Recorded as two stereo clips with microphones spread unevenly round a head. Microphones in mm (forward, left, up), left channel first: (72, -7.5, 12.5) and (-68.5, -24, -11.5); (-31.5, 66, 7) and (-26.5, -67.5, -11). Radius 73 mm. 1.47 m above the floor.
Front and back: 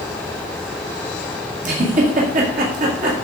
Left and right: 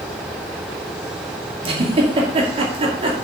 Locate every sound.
1.6 s a giggle: 140° right, 2 m